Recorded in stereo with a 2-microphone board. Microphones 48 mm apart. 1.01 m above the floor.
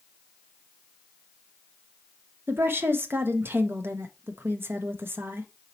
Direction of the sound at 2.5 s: 50° right (ahead or behind).